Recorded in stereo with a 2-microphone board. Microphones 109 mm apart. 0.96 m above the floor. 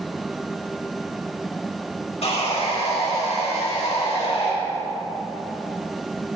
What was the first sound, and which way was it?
Sawing, 70° left (ahead or behind).